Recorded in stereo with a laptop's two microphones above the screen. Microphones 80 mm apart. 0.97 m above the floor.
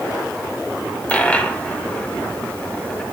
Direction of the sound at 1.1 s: 15° left (ahead or behind).